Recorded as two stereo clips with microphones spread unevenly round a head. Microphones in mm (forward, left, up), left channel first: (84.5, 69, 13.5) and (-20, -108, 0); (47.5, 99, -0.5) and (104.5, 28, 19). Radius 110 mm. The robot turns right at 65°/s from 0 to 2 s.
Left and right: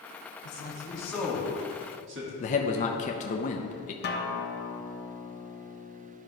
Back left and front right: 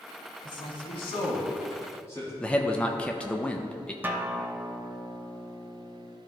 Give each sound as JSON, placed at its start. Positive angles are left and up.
{"t": 0.4, "sound": "a man speaking", "azimuth_deg": 100, "distance_m": 1.5}
{"t": 2.4, "sound": "a man speaking", "azimuth_deg": 85, "distance_m": 0.5}
{"t": 4.0, "sound": "a guitar", "azimuth_deg": 25, "distance_m": 0.8}